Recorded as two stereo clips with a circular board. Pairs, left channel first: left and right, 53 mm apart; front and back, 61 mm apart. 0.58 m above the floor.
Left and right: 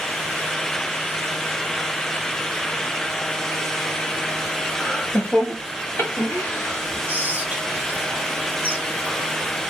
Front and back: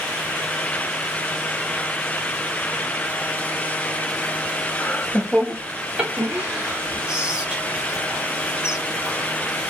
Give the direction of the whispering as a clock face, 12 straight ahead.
4 o'clock.